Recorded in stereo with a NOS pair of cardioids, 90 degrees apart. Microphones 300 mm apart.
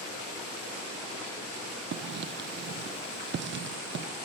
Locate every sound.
1.9 s writing: 40° right, 0.6 m